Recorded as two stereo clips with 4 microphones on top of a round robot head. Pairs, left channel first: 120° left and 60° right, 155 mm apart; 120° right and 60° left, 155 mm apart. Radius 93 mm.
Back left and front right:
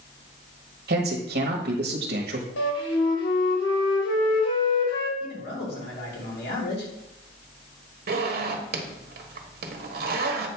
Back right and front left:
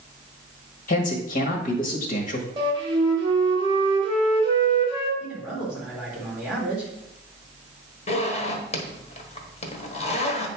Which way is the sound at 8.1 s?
75° right.